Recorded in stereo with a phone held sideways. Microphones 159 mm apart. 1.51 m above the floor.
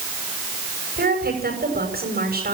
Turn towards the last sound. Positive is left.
turn(degrees=-75)  # may be behind; listen again after turning